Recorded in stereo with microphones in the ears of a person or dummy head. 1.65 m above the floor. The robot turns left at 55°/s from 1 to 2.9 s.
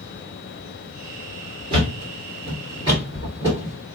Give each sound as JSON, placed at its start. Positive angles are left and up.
{"t": 1.7, "sound": "a thud", "side_deg": -30, "distance_m": 1.8}